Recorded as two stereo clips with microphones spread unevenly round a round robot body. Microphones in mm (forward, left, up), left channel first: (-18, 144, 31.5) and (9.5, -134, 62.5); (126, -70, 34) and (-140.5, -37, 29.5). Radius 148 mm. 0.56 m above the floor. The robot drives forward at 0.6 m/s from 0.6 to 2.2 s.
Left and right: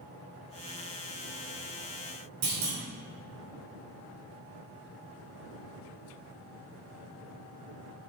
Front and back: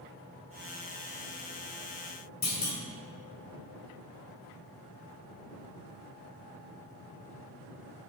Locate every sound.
2.4 s a clunk: 60° right, 2.5 m